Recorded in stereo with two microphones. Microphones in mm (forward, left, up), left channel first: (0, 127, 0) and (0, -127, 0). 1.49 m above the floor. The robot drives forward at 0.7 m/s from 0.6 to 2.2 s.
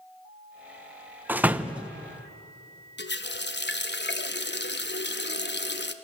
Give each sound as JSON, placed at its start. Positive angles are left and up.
{"t": 1.3, "sound": "a door slam", "side_deg": -5, "distance_m": 0.6}
{"t": 3.0, "sound": "a running tap", "side_deg": 45, "distance_m": 1.0}